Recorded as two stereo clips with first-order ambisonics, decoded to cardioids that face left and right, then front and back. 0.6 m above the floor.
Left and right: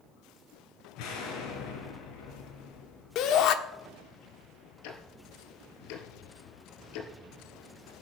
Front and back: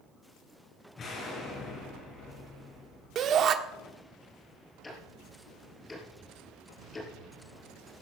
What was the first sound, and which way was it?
An explosion, 65° left.